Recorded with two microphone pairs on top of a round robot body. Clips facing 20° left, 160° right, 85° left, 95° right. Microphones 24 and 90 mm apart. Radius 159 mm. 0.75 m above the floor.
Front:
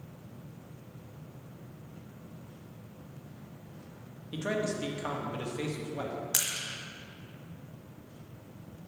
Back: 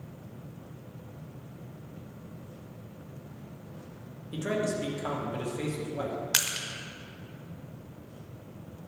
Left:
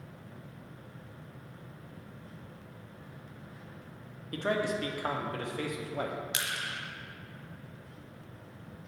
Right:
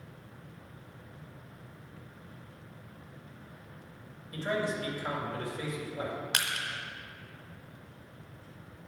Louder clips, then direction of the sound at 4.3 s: Back 2 dB, left 1 dB; 90° left.